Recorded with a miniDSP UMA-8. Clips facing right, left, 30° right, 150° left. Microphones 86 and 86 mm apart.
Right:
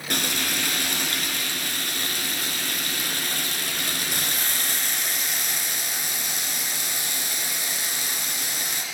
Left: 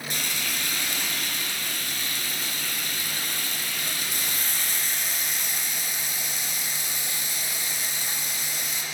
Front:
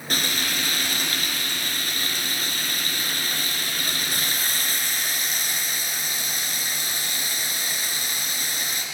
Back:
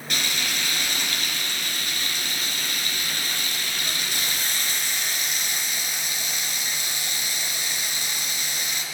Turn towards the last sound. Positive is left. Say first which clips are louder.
# right 7 dB, front 2 dB
turn(degrees=-75)